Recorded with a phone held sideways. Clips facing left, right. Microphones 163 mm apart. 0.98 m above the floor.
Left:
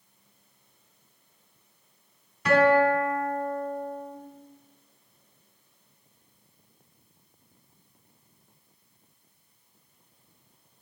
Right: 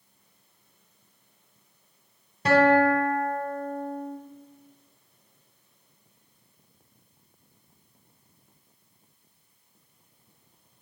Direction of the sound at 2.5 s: 35° right (ahead or behind).